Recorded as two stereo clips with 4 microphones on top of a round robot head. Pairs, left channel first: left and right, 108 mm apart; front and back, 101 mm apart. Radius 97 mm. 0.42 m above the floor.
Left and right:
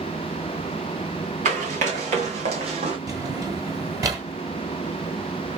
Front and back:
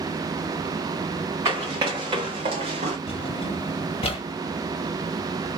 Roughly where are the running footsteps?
Right.